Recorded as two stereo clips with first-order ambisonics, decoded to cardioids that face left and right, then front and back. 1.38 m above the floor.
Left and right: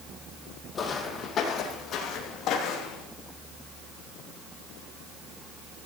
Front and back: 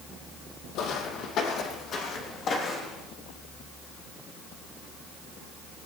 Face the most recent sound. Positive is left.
turn(degrees=60)